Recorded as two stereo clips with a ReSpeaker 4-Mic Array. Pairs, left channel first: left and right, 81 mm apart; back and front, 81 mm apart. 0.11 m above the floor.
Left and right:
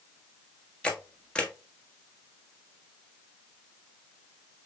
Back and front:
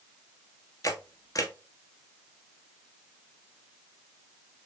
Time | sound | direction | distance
0.8 | a camera shutter | 165° left | 1.0 m